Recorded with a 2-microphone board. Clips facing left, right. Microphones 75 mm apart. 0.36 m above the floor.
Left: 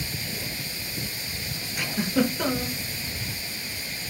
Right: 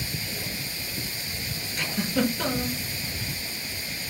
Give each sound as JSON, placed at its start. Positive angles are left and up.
{"t": 1.8, "sound": "a giggle", "side_deg": 10, "distance_m": 1.0}